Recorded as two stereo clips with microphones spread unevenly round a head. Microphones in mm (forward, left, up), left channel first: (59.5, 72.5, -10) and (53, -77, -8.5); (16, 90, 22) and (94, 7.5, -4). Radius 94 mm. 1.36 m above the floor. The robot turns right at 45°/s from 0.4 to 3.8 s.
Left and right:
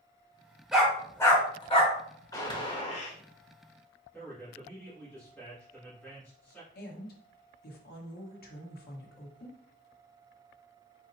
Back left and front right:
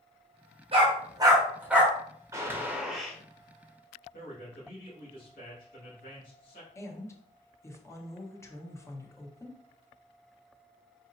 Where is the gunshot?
25° left, 1.6 m; by 3.2 s 65° left, 1.6 m.